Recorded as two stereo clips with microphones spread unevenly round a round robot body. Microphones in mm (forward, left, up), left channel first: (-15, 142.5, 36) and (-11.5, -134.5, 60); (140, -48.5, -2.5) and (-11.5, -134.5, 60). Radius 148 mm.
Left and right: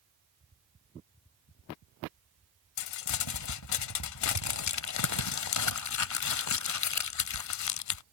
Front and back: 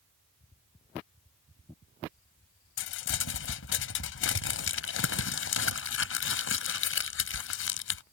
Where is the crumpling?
55° left.